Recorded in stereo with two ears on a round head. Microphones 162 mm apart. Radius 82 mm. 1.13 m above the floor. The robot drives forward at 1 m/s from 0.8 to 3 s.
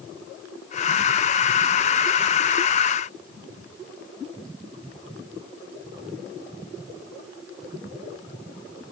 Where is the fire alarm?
No fire alarm in this recording.